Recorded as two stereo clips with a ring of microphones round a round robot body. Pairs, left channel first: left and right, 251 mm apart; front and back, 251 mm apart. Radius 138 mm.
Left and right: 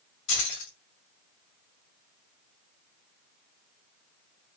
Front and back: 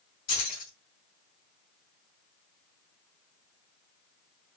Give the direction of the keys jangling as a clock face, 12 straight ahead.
10 o'clock.